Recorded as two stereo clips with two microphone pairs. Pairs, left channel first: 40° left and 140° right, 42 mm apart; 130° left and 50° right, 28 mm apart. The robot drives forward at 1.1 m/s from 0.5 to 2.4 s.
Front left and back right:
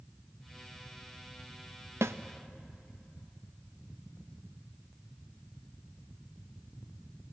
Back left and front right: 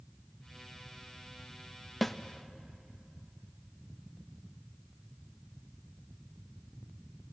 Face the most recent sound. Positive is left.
turn(degrees=-160)